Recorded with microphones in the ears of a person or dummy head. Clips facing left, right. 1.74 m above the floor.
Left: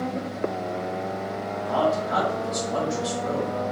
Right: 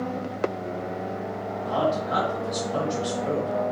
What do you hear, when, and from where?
1.6 s a man speaking: 25° right (ahead or behind), 1.4 m